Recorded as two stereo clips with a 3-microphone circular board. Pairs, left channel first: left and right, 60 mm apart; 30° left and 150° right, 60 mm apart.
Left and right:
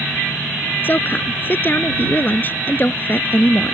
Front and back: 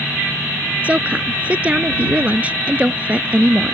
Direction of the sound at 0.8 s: 140° left.